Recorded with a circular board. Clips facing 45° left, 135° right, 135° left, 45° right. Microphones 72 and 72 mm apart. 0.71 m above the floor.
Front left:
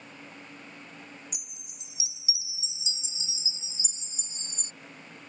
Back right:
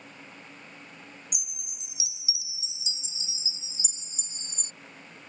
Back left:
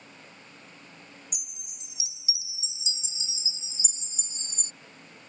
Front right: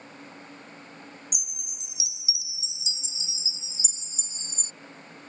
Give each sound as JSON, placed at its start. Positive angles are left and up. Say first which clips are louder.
{"t": 1.3, "sound": "a chime", "louder": "even, front right 5 dB", "azimuth_deg": 90}